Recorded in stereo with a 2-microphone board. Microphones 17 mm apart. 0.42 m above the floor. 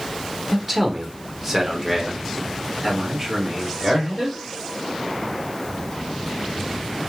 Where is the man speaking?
10° right (ahead or behind), 1.4 m; by 4.4 s 30° right (ahead or behind), 1.8 m.